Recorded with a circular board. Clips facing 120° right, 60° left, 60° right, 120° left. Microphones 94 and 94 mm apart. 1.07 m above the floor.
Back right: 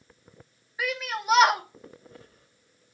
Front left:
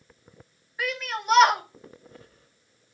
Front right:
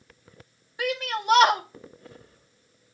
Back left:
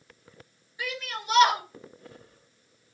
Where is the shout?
35° right, 2.5 m.